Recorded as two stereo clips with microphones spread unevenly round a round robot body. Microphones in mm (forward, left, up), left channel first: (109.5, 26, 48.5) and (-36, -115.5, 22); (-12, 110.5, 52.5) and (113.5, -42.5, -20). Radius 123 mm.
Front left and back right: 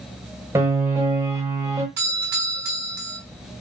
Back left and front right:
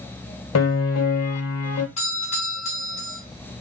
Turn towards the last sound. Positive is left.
turn(degrees=-165)